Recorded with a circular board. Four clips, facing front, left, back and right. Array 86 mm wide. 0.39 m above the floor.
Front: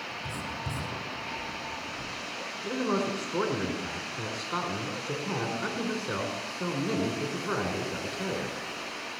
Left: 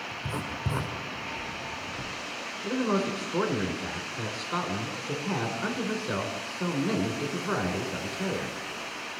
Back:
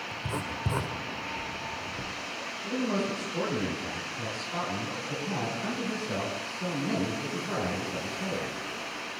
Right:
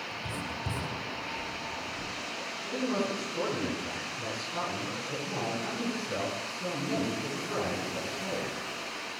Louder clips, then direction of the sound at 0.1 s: Left 3 dB, back 4 dB; 145° left.